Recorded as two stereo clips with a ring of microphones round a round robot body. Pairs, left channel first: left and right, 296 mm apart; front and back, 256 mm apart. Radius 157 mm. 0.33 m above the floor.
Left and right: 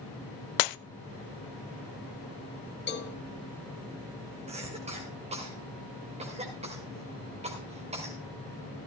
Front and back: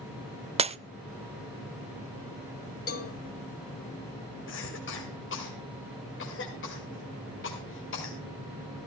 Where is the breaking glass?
110° left, 0.6 m.